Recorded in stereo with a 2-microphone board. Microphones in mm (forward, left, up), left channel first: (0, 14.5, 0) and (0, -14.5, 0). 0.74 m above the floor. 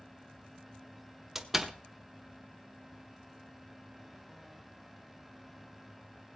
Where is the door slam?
10° right (ahead or behind), 1.1 m.